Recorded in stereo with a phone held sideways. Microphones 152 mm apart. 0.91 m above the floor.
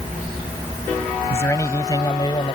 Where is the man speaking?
15° left (ahead or behind); by 2.6 s 35° left (ahead or behind).